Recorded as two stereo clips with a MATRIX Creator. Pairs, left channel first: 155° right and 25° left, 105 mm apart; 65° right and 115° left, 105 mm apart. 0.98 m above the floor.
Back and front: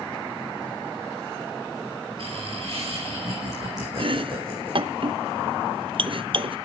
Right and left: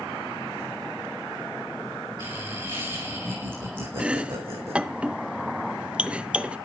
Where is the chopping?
35° left, 0.7 m.